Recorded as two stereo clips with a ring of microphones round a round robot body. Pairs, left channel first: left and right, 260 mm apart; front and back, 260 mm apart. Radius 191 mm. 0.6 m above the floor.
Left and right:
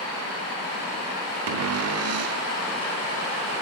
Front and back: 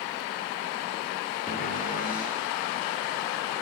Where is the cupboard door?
65° right, 1.0 m.